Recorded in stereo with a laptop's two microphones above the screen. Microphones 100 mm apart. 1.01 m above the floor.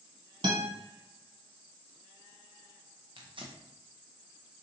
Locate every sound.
0.4 s a guitar: 55° right (ahead or behind), 1.9 m
3.2 s tearing paper: 55° right (ahead or behind), 0.6 m